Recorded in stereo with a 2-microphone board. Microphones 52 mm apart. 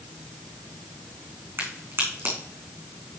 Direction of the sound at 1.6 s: 50° right (ahead or behind).